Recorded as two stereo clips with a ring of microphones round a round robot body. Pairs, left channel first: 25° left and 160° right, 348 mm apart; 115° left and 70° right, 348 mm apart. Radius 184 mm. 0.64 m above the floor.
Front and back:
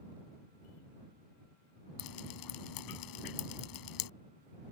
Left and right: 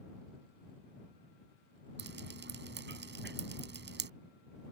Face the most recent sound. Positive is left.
turn(degrees=-5)